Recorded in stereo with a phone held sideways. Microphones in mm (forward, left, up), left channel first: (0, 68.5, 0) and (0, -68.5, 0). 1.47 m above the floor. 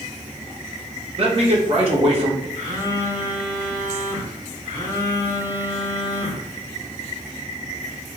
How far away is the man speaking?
About 0.9 m.